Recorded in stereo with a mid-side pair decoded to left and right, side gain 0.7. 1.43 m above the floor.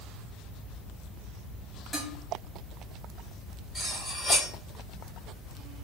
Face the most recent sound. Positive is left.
turn(degrees=5)